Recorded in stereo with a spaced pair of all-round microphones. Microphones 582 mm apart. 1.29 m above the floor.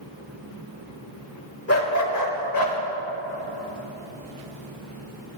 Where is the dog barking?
25° left (ahead or behind), 1.1 m; by 2.8 s 40° left (ahead or behind), 1.3 m.